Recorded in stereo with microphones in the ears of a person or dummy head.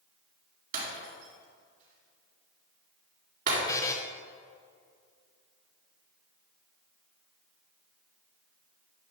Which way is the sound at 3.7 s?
20° left (ahead or behind).